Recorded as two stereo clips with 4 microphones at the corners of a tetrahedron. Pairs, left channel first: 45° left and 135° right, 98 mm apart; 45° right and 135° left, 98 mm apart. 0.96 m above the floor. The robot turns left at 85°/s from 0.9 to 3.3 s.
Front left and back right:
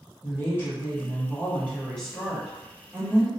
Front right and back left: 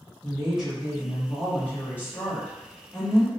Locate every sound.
0.2 s a woman speaking: 60° left, 0.7 m; by 3.3 s 145° right, 0.7 m